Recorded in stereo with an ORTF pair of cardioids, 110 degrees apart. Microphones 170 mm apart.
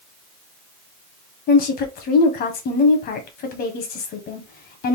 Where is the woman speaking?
65° left, 1.4 m.